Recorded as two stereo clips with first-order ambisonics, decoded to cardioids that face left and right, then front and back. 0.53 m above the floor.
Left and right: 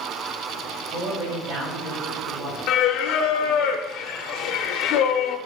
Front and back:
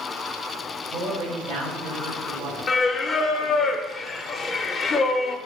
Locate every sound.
0.9 s a man speaking: 130° right, 3.5 m
2.7 s singing: 65° left, 0.6 m